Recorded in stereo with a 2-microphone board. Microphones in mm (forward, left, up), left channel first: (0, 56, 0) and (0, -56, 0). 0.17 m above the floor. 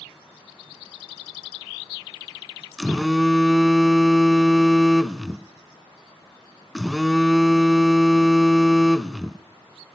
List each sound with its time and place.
2.8 s a phone buzzing: centre (ahead or behind), 0.5 m